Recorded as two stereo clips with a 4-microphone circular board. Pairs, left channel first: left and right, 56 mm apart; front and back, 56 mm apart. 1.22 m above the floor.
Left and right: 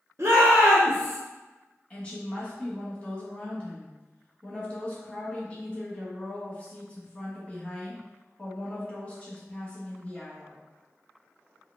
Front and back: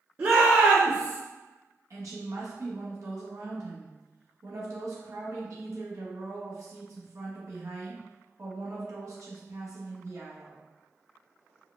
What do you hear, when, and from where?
0.2 s a shout: 135° right, 0.8 m; by 1.2 s 150° right, 1.3 m
1.9 s a woman speaking: 155° left, 1.4 m